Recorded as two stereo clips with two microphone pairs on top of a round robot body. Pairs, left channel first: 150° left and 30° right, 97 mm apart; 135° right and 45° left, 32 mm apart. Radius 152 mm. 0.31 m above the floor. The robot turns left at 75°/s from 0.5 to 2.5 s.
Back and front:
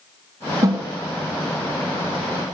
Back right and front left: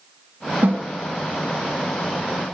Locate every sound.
0.6 s a snare drum: 30° left, 0.7 m; by 0.8 s 10° left, 0.7 m